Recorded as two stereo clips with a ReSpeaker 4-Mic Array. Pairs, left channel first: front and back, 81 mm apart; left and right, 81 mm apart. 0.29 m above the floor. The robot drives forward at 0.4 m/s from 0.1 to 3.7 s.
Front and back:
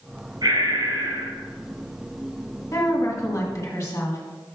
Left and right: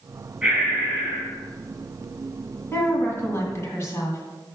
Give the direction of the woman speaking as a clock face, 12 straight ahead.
11 o'clock.